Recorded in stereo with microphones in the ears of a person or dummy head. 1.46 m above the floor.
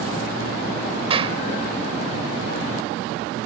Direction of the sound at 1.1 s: 30° right (ahead or behind).